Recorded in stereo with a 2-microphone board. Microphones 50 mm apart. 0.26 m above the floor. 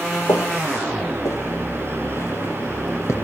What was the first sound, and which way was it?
Footsteps, 75° left (ahead or behind).